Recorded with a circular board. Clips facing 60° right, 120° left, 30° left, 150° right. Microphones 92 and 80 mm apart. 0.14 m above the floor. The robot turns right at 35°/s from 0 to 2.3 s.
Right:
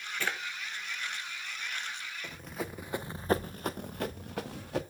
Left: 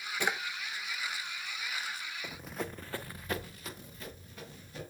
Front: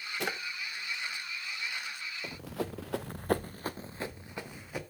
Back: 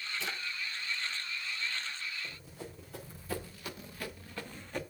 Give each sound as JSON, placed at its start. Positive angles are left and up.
{"t": 0.2, "sound": "a drawer", "azimuth_deg": 45, "distance_m": 0.5}
{"t": 2.2, "sound": "running footsteps", "azimuth_deg": 40, "distance_m": 0.8}